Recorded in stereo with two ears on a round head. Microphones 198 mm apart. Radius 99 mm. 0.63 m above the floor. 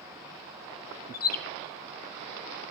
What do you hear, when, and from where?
1.1 s a bird: 45° left (ahead or behind), 0.7 m